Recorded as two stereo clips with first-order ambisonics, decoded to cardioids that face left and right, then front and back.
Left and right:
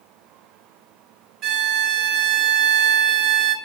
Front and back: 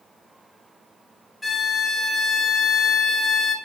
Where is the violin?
75° right, 1.0 m.